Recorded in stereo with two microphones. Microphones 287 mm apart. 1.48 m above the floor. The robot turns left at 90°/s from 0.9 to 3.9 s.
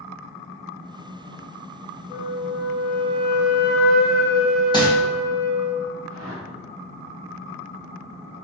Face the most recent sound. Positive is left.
turn(degrees=-50)  # may be behind; listen again after turning